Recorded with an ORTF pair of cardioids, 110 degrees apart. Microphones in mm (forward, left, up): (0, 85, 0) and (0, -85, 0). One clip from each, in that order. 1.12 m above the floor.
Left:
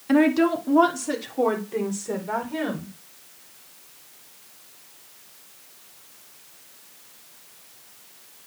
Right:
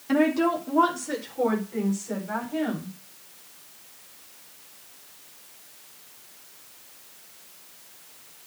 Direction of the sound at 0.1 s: 30° left.